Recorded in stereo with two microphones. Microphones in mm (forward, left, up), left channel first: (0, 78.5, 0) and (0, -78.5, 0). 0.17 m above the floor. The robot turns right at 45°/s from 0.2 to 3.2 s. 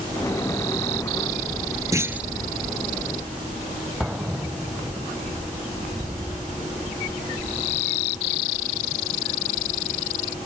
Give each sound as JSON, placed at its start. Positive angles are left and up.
{"t": 1.9, "sound": "a clunk", "side_deg": -20}
{"t": 4.0, "sound": "an explosion", "side_deg": -5}